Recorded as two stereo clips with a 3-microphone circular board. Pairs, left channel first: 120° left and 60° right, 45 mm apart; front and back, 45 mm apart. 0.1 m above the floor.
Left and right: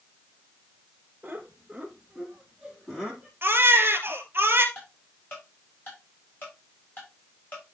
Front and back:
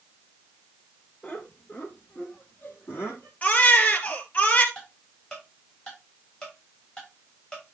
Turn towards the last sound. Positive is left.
turn(degrees=70)